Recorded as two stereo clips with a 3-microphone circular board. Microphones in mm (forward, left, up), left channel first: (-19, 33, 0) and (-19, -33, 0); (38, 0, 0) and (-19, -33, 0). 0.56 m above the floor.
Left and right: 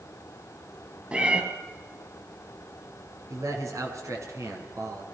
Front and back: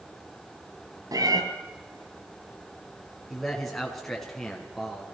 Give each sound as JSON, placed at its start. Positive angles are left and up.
{"t": 1.1, "sound": "a cat meowing", "azimuth_deg": -160, "distance_m": 3.0}
{"t": 3.3, "sound": "a man speaking", "azimuth_deg": -55, "distance_m": 5.0}